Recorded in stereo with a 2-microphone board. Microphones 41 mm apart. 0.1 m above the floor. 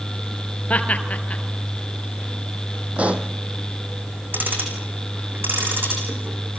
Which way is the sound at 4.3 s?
55° right (ahead or behind).